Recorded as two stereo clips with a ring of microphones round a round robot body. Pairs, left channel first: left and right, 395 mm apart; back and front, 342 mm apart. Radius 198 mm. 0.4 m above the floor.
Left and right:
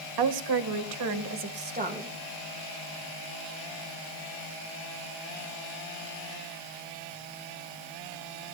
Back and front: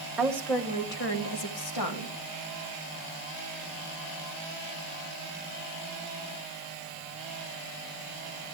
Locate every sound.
0.2 s a woman speaking: 85° right, 1.7 m; by 2.1 s 165° right, 2.5 m